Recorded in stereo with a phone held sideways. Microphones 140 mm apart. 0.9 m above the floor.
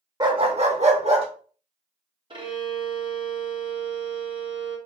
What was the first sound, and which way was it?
A dog barking, 30° right (ahead or behind).